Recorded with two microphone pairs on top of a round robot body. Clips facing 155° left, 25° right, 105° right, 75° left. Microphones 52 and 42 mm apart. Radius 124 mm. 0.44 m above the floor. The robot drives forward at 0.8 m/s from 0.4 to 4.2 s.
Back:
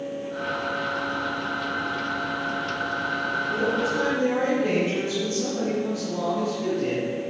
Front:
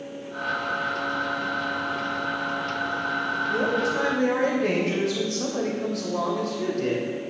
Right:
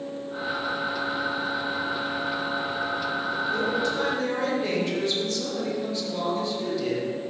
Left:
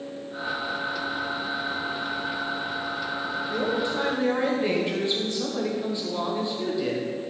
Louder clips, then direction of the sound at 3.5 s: Front 1 dB, even; straight ahead.